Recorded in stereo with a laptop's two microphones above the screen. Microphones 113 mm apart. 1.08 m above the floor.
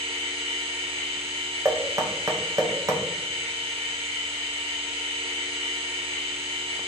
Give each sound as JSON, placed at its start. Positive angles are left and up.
{"t": 0.0, "sound": "a machine running", "side_deg": -60, "distance_m": 1.5}
{"t": 1.6, "sound": "knocking", "side_deg": -30, "distance_m": 0.5}